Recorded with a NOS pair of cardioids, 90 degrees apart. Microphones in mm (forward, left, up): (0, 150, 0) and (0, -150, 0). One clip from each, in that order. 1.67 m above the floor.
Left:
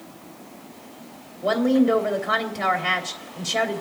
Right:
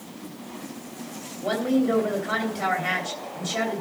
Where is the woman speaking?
35° left, 3 m.